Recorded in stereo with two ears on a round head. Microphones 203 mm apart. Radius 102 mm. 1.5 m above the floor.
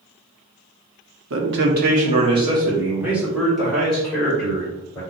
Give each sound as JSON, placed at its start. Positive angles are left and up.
{"t": 1.3, "sound": "a man speaking", "side_deg": -60, "distance_m": 1.1}